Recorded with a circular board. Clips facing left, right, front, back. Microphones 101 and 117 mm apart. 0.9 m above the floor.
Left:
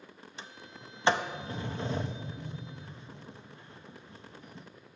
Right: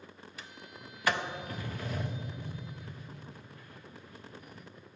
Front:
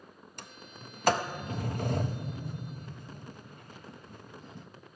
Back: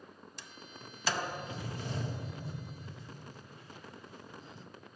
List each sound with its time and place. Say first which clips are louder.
0.4 s a sliding door: left 2 dB, front 4 dB; 30° left, 0.5 m